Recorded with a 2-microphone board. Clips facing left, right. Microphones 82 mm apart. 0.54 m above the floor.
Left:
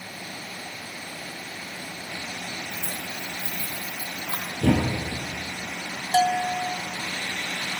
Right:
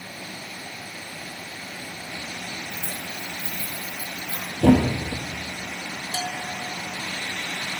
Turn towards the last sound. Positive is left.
turn(degrees=60)  # may be behind; listen again after turning